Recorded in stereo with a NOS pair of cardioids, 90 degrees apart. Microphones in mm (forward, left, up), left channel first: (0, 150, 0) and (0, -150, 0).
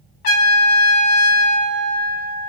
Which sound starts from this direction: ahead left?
A trumpet, at 0.2 s.